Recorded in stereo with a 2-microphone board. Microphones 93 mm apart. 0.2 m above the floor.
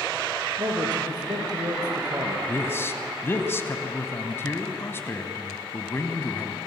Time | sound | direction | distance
0.6 | a man speaking | 45° right (ahead or behind) | 4 m
2.5 | a man speaking | 25° left (ahead or behind) | 1.5 m